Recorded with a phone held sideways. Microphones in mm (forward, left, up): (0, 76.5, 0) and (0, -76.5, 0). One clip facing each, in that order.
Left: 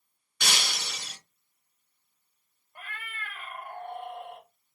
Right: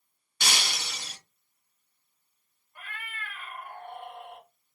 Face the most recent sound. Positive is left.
turn(degrees=40)  # may be behind; listen again after turning